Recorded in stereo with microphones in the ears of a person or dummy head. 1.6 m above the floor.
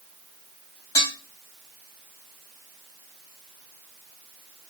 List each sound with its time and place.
0.9 s dishes clattering: 25° left (ahead or behind), 1.8 m